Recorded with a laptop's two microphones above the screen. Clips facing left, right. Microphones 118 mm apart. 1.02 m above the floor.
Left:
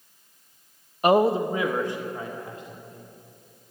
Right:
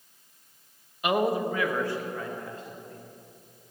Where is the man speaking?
40° left (ahead or behind), 0.5 m; by 3.0 s 15° left (ahead or behind), 3.5 m.